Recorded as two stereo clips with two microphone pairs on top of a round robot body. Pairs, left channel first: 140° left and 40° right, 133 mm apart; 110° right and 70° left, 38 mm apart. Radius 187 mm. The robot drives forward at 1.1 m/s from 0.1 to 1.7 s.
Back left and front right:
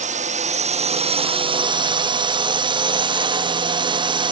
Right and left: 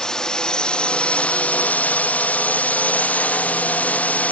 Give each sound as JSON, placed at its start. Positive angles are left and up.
{"t": 0.0, "sound": "a drone", "azimuth_deg": -40}